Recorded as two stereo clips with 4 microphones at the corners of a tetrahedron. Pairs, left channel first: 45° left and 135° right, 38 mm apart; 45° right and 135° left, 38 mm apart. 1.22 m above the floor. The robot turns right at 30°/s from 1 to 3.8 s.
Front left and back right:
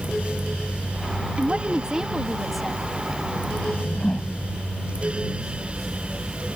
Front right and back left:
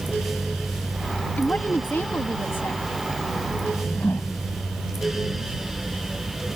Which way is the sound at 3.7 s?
25° right.